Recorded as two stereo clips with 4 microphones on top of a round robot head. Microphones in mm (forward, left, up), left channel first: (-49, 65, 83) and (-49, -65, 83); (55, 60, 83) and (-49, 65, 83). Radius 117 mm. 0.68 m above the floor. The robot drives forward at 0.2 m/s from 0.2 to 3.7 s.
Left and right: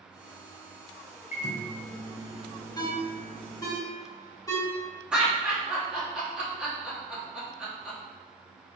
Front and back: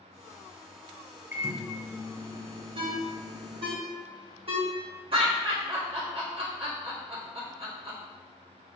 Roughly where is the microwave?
Left.